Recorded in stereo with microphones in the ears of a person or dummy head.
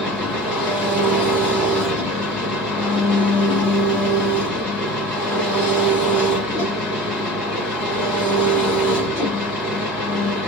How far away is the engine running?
About 1.4 m.